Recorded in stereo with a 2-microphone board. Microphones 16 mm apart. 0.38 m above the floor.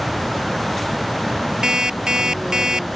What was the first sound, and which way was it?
An alarm clock, 40° right (ahead or behind).